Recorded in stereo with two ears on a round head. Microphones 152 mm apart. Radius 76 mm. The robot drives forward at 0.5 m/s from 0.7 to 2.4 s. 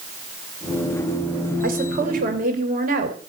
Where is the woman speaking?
55° right (ahead or behind), 3.5 m; by 3.2 s 50° right (ahead or behind), 3.5 m.